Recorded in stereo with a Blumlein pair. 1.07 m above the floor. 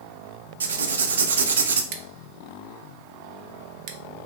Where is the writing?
65° right, 0.5 m.